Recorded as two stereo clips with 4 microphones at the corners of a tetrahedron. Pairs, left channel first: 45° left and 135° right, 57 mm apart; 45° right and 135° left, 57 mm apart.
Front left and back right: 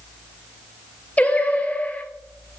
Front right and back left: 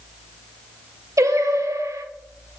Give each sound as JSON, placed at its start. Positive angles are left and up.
{"t": 1.2, "sound": "singing", "azimuth_deg": 110, "distance_m": 0.6}